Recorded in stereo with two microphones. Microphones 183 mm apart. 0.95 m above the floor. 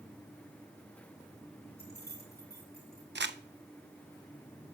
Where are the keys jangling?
55° left (ahead or behind), 5 m.